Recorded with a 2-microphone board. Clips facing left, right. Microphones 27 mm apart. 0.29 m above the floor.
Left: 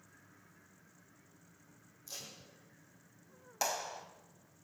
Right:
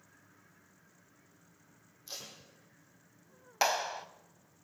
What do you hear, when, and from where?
2.1 s tape being pulled: 35° right (ahead or behind), 7 m
3.6 s a clap: 40° right (ahead or behind), 1.2 m